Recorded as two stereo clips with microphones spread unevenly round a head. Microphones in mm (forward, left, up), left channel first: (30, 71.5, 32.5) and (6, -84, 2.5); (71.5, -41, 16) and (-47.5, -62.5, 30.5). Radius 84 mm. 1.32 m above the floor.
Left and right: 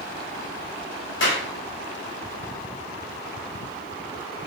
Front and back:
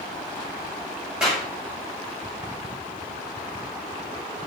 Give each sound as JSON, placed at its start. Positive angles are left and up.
{"t": 1.2, "sound": "a clap", "azimuth_deg": 105, "distance_m": 6.5}